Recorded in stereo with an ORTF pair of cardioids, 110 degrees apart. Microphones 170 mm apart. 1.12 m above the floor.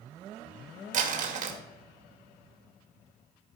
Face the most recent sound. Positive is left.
turn(degrees=-50)